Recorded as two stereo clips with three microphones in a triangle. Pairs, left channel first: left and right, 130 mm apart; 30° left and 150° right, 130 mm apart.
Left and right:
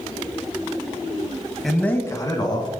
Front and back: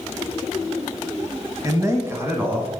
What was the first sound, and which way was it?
A man speaking, 175° right.